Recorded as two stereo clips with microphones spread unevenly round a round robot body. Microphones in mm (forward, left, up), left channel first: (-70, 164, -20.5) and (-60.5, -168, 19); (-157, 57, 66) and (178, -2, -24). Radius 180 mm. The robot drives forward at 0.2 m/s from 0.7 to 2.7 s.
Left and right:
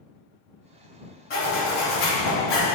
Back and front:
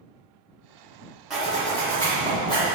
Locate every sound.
1.3 s a zipper: 65° left, 1.1 m; by 2.7 s 85° left, 1.0 m